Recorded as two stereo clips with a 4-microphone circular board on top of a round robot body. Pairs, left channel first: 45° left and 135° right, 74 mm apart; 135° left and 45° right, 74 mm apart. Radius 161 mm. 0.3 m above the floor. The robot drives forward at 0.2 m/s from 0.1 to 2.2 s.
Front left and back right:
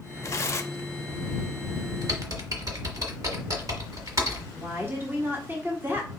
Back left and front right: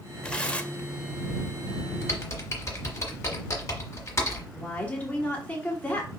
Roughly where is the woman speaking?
Behind.